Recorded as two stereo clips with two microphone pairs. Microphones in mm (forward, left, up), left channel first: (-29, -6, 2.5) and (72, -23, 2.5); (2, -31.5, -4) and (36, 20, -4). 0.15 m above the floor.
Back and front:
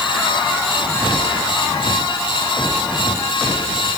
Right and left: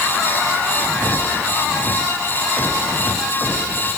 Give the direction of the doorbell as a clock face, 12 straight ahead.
No doorbell in this recording.